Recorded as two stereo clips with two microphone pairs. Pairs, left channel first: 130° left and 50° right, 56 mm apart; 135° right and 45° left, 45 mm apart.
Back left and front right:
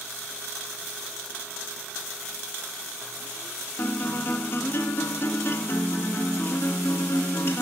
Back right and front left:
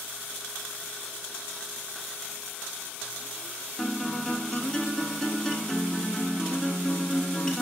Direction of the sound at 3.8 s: 150° left.